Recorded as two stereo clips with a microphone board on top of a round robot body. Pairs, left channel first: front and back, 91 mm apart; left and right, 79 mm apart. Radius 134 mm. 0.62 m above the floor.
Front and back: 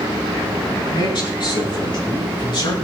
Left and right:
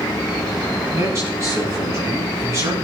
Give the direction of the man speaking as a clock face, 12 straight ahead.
1 o'clock.